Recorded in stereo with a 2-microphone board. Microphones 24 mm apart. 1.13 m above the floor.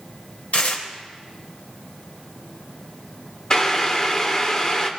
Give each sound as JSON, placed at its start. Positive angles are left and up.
{"t": 0.5, "sound": "tearing paper", "side_deg": 75, "distance_m": 2.5}
{"t": 3.5, "sound": "boiling", "side_deg": 25, "distance_m": 1.7}